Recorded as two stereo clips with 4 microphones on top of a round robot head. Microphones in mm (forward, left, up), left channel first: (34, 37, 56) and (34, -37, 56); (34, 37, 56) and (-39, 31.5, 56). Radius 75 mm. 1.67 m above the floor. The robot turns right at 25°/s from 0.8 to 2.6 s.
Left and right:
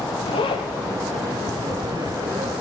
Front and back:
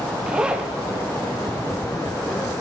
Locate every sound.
0.3 s a zipper: 105° left, 0.9 m